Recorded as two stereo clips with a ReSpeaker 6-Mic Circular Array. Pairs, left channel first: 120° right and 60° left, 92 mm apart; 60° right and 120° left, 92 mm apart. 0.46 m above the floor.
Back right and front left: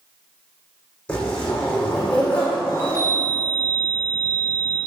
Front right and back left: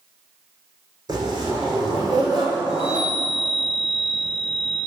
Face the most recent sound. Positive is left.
turn(degrees=110)